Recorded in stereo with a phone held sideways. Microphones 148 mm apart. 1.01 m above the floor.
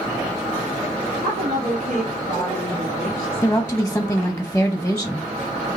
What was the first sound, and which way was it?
A woman speaking, 75° right (ahead or behind).